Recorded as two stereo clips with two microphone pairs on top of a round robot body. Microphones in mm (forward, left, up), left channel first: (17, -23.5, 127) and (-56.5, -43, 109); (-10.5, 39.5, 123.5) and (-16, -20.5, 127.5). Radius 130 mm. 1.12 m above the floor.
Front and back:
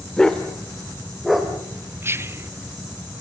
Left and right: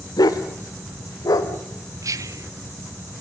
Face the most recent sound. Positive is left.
turn(degrees=-115)